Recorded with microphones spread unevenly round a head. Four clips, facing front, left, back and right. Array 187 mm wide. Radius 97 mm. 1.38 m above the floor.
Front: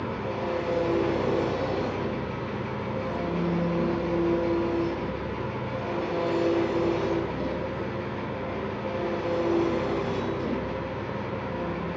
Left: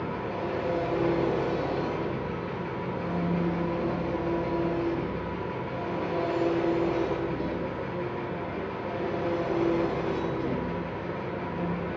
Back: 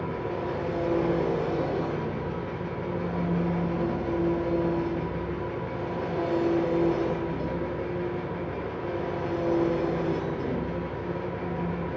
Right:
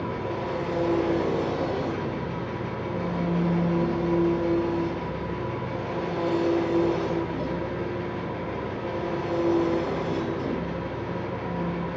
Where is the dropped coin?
I don't hear a dropped coin.